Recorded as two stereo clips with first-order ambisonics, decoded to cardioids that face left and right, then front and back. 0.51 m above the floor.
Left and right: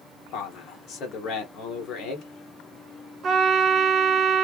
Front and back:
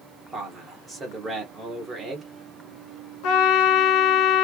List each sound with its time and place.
0.3 s a man speaking: 115° left, 1.4 m
3.2 s a trumpet: 30° right, 0.9 m